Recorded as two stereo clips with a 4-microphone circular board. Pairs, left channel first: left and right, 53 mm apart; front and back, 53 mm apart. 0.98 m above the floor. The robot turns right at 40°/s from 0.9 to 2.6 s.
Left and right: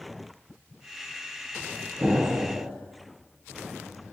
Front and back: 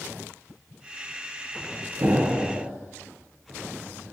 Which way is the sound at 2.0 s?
145° right.